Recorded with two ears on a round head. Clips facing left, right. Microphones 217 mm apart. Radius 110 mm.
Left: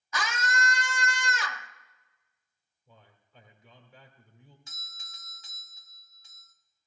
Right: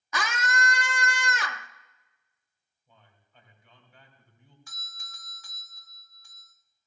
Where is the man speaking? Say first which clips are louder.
Left 4 dB; 60° left (ahead or behind), 2 m.